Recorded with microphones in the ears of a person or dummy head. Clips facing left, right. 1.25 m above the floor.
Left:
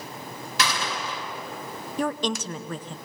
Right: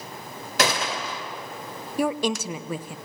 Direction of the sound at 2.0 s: 10° right (ahead or behind).